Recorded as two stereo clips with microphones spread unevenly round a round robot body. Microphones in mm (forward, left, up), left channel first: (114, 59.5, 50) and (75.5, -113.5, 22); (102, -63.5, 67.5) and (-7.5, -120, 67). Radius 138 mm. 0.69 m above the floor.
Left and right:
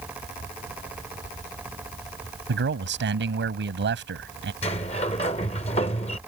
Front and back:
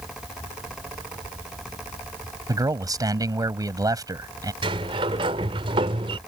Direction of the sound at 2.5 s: 95° right.